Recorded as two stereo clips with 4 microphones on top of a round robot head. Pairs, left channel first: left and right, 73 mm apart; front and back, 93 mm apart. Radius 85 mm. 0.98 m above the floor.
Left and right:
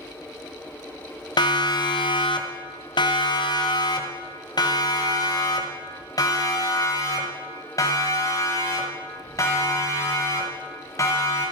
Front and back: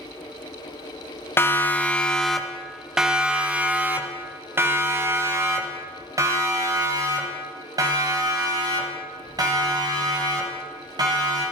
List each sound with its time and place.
1.4 s a siren: 65° left, 2.5 m; by 11.4 s 135° left, 10 m